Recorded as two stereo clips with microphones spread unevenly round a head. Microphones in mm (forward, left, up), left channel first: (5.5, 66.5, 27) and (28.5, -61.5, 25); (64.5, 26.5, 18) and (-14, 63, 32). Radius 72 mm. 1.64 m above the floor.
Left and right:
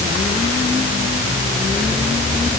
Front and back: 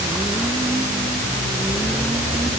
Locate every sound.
Only background noise.